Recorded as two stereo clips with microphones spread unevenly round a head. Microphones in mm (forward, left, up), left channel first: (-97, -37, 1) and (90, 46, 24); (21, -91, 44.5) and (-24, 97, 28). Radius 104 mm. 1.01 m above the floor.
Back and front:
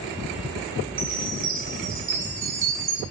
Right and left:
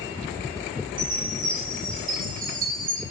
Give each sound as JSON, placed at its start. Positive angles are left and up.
{"t": 1.0, "sound": "a chime", "azimuth_deg": 55, "distance_m": 6.5}